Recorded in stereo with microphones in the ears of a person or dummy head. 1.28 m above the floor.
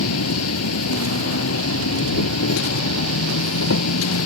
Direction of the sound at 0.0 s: 90° left.